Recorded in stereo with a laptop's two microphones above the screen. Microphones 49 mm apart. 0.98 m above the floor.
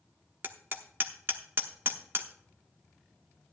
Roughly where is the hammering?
Right.